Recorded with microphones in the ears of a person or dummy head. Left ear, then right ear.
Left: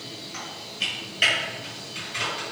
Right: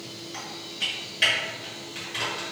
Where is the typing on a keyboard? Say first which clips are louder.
Left 1 dB; 5° left (ahead or behind), 1.5 m.